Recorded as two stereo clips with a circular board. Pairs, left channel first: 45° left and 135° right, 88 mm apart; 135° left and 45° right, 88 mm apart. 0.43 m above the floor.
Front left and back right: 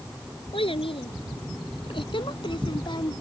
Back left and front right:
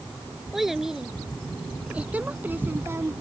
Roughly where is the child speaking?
Ahead left.